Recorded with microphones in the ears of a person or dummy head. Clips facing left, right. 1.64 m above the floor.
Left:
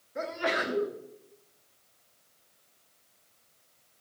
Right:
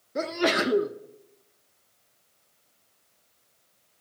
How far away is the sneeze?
About 0.6 m.